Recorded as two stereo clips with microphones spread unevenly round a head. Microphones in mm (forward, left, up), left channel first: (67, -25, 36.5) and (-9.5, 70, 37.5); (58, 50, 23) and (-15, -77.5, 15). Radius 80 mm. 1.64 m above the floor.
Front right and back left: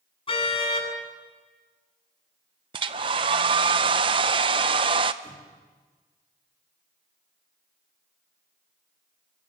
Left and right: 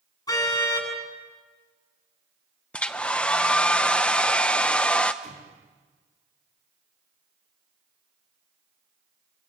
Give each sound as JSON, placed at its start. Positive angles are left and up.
{"t": 0.3, "sound": "a car horn", "azimuth_deg": -5, "distance_m": 9.0}
{"t": 2.7, "sound": "a hair dryer", "azimuth_deg": 135, "distance_m": 0.7}
{"t": 5.2, "sound": "an explosion", "azimuth_deg": -170, "distance_m": 5.0}